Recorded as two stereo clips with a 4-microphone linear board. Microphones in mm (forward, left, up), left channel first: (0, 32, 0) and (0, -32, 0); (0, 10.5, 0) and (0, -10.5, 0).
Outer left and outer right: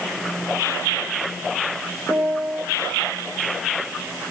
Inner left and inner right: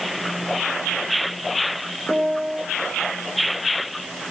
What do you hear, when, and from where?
2.1 s a piano: 10° left (ahead or behind), 3 m